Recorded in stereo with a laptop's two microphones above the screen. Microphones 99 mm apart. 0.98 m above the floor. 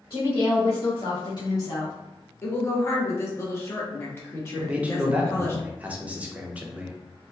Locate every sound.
0.1 s a woman speaking: 40° left (ahead or behind), 1.3 m; by 1.9 s 25° left (ahead or behind), 0.8 m
2.4 s a woman speaking: 25° left (ahead or behind), 0.7 m
4.6 s a man speaking: 15° right (ahead or behind), 0.6 m